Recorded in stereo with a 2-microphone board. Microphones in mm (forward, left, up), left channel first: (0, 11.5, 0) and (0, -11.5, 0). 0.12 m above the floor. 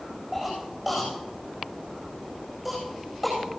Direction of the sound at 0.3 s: 15° right (ahead or behind).